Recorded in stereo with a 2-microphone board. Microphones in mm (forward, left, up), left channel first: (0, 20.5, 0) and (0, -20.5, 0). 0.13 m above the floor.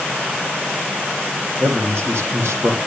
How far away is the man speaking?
About 3.5 m.